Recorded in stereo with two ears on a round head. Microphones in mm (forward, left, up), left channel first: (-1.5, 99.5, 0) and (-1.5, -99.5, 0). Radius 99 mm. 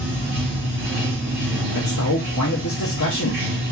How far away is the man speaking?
About 0.7 m.